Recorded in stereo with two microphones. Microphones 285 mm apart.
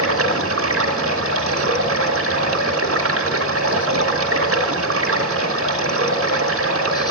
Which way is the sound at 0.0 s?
50° right (ahead or behind).